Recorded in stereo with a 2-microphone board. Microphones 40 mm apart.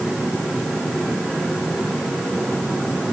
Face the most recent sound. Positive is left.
No sound to turn to.